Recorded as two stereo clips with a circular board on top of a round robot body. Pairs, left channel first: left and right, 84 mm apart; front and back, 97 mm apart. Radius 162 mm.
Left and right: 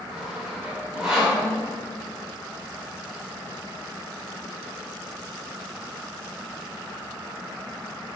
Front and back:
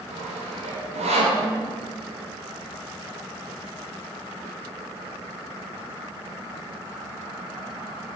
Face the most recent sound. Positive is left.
turn(degrees=-170)